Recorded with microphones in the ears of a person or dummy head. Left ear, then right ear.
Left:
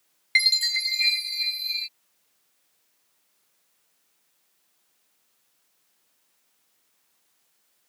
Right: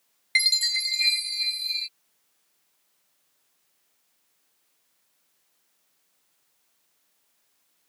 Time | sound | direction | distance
0.3 | a chime | 15° left (ahead or behind) | ?